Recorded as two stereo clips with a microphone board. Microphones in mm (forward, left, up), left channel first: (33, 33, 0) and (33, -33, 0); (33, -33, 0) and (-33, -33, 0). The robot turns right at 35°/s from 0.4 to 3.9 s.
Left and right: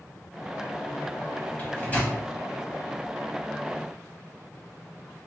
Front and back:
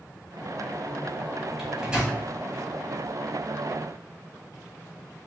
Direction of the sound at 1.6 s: 105° left.